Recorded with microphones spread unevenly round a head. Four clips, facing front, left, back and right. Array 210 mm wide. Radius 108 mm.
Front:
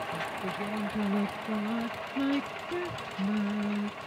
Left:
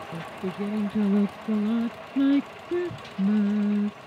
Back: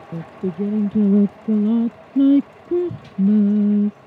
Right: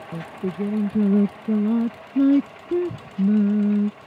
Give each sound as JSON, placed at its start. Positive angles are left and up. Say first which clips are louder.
{"t": 0.1, "sound": "singing", "louder": "right 5 dB, back 8 dB", "azimuth_deg": -160}